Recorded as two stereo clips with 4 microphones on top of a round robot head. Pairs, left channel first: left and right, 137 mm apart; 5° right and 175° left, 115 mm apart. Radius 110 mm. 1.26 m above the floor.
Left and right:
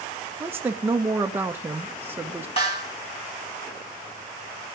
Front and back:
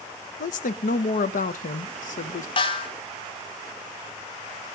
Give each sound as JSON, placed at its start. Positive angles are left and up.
{"t": 0.4, "sound": "a woman speaking", "azimuth_deg": -15, "distance_m": 0.9}
{"t": 2.6, "sound": "a snare drum", "azimuth_deg": 30, "distance_m": 1.9}